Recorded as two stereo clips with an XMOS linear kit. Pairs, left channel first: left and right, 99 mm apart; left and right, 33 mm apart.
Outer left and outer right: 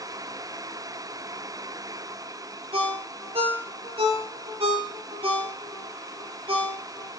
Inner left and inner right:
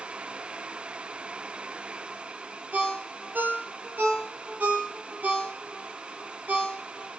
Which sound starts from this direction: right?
A ringtone, at 2.7 s.